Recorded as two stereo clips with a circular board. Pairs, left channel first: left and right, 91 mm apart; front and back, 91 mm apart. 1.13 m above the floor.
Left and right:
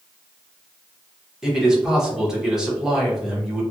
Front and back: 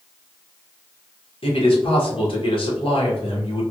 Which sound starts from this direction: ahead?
A man speaking, at 1.4 s.